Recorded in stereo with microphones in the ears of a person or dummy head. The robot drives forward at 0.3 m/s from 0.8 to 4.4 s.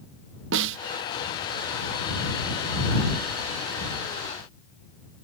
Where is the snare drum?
65° right (ahead or behind).